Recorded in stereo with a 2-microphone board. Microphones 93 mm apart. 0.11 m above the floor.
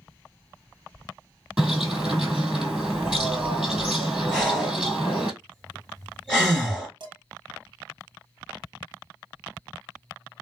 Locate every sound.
1.6 s a bird: 5° right (ahead or behind), 1.4 m
4.3 s breathing: 5° left (ahead or behind), 1.5 m
7.0 s dishes clattering: 55° right (ahead or behind), 1.6 m